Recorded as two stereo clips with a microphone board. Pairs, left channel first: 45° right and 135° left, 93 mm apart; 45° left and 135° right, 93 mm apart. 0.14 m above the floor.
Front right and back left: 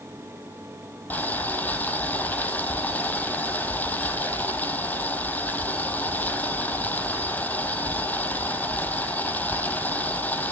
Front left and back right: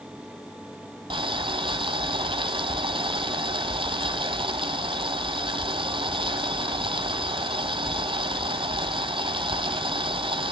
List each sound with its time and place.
1.1 s boiling: 115° right, 1.2 m